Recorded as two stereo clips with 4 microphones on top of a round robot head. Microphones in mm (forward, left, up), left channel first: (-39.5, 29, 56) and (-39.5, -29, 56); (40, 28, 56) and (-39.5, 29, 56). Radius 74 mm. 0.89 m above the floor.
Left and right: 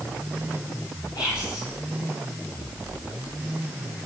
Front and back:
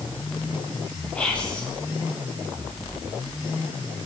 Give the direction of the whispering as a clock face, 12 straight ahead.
9 o'clock.